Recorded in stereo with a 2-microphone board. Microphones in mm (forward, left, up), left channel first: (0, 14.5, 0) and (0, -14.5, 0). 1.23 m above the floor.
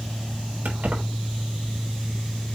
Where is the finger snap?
I don't hear a finger snap.